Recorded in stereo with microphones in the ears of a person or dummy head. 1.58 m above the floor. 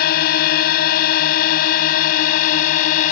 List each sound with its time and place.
0.0 s a drone: 70° left (ahead or behind); by 3.1 s 65° left (ahead or behind)